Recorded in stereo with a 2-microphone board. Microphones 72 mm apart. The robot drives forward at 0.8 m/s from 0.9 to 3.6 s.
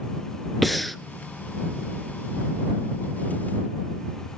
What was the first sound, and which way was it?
Breathing, centre (ahead or behind).